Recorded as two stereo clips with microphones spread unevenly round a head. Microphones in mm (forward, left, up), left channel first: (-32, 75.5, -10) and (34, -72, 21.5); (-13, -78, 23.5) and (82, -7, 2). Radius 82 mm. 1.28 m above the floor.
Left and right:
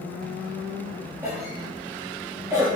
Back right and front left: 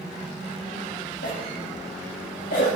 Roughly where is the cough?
Behind right.